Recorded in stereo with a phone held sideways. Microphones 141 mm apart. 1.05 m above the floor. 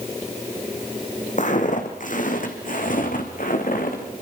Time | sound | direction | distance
1.4 | footsteps | 65° left (ahead or behind) | 3 m